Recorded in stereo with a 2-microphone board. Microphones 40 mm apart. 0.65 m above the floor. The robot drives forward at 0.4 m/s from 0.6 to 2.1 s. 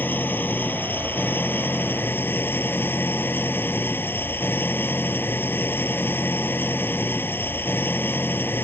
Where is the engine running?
55° left (ahead or behind); by 8.6 s 60° left (ahead or behind).